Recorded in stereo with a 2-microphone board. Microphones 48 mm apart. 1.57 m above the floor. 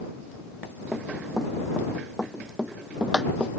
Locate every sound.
0.9 s running footsteps: 5° left (ahead or behind); by 3.5 s 20° right (ahead or behind)